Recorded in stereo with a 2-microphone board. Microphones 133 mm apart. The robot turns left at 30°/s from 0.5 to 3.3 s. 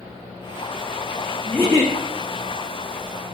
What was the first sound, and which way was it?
A giggle, 15° left (ahead or behind).